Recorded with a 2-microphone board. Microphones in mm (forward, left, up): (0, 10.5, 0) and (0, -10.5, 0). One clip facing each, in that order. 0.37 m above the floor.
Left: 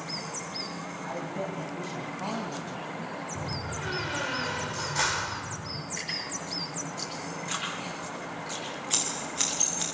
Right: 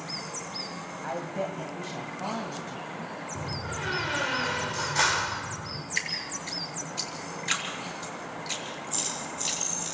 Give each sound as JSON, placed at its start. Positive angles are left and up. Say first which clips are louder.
{"t": 1.0, "sound": "a woman speaking", "louder": "right 3 dB", "side_deg": -25, "distance_m": 2.5}
{"t": 3.4, "sound": "a door slam", "louder": "right 3 dB", "side_deg": -15, "distance_m": 1.0}
{"t": 6.0, "sound": "dripping", "louder": "right 4 dB", "side_deg": -45, "distance_m": 7.5}
{"t": 8.9, "sound": "scissors", "louder": "left 3 dB", "side_deg": 55, "distance_m": 8.0}